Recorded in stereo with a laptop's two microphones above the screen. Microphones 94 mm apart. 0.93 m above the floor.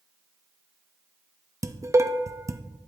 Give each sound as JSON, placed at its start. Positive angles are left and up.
{"t": 1.6, "sound": "dishes clattering", "side_deg": -30, "distance_m": 0.5}